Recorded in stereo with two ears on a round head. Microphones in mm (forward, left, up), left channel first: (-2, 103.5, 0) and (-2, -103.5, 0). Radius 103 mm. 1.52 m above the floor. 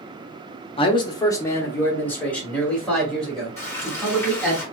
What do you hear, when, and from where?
0.8 s a man speaking: 25° left (ahead or behind), 0.6 m; by 4.6 s centre (ahead or behind), 2.5 m
3.6 s frying: 10° left (ahead or behind), 2.5 m